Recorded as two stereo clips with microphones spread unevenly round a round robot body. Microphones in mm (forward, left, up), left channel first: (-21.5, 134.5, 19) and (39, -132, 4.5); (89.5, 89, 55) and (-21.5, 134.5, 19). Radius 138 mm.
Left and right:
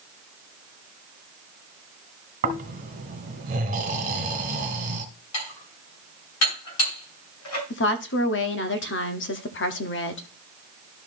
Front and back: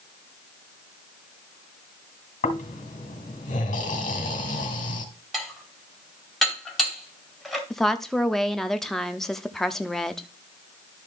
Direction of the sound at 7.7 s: 85° left.